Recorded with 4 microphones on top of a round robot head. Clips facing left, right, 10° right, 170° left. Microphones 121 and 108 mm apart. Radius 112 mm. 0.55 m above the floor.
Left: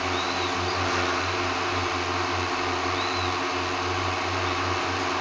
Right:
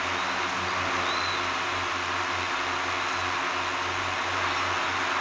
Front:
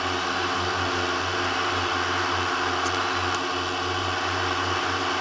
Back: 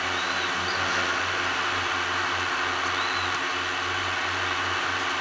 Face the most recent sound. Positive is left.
turn(degrees=40)